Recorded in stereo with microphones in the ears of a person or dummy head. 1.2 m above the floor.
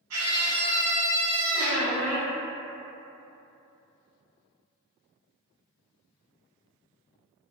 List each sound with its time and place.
0.1 s a scream: 75° right (ahead or behind), 1.0 m; by 1.9 s 20° left (ahead or behind), 0.7 m
1.5 s a squeak: 55° left (ahead or behind), 1.1 m